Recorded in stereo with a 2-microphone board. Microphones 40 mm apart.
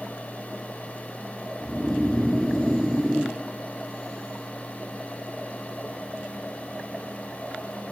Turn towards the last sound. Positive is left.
turn(degrees=-5)  # may be behind; listen again after turning